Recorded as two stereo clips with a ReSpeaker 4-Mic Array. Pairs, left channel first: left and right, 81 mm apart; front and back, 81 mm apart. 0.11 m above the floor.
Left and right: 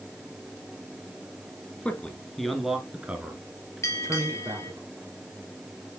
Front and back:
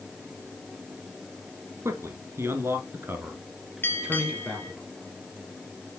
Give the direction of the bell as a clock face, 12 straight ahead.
10 o'clock.